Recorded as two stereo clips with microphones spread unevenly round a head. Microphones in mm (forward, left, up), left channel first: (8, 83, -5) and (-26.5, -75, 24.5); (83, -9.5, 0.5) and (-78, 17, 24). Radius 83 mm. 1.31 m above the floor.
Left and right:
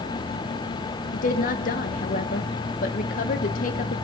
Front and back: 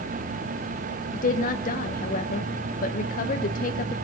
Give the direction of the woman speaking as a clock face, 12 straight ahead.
11 o'clock.